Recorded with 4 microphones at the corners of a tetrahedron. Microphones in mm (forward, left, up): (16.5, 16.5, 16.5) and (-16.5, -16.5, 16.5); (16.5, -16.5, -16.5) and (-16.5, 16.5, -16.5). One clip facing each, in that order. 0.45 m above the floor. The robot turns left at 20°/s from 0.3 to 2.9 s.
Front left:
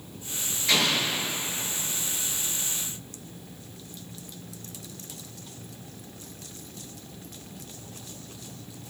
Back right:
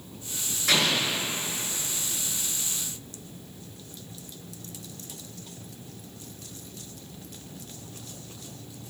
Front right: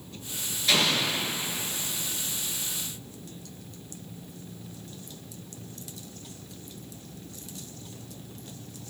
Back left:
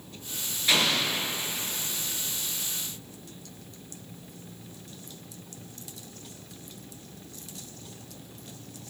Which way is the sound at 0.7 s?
145° right.